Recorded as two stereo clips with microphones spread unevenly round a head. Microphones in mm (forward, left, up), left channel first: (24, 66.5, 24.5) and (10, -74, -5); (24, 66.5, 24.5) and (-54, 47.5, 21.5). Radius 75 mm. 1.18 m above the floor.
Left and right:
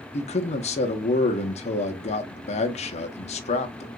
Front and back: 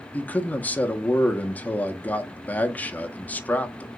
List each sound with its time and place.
0.1 s a man speaking: 70° left, 0.6 m